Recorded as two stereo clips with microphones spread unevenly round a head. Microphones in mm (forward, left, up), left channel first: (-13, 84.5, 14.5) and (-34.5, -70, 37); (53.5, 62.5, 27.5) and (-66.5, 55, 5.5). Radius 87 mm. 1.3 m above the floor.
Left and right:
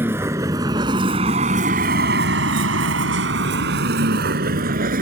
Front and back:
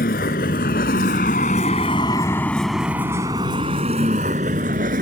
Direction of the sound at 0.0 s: 20° right.